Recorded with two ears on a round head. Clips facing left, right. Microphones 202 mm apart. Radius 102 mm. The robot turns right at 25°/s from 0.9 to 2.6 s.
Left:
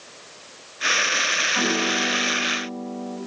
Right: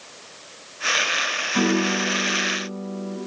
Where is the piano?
40° right (ahead or behind), 3.5 m; by 3.2 s 15° right (ahead or behind), 3.5 m.